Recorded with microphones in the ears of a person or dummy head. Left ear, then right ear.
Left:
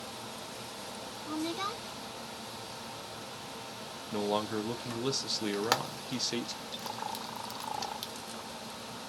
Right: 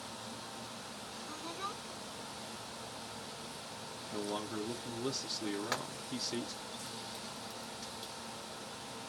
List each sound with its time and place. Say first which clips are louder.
1.3 s a woman speaking: left 7 dB; 45° left (ahead or behind), 0.9 m
4.1 s a man speaking: left 8 dB; 25° left (ahead or behind), 0.5 m
5.5 s frying: left 7 dB; 35° left (ahead or behind), 1.1 m